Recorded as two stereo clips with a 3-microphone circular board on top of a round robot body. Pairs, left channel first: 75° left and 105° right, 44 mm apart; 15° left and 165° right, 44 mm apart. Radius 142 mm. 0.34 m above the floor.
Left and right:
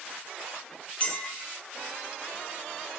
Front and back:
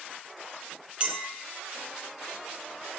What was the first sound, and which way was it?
A clink, 135° left.